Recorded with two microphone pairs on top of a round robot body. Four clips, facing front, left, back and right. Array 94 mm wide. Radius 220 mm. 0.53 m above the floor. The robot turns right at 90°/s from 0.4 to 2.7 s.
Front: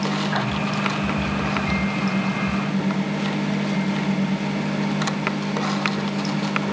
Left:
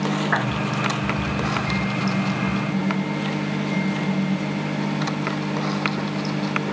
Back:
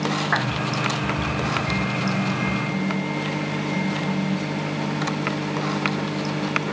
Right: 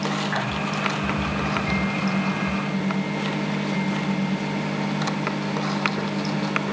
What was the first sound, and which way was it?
A clap, 140° left.